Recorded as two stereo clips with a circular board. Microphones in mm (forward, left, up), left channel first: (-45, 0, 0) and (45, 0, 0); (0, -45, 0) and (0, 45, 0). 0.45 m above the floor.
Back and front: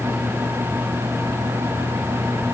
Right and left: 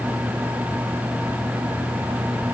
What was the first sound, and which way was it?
Only background noise.